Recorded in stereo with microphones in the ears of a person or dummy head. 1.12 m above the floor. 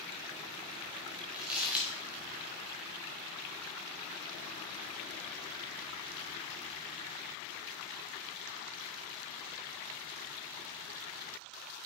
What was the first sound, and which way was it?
Crumpling, 10° right (ahead or behind).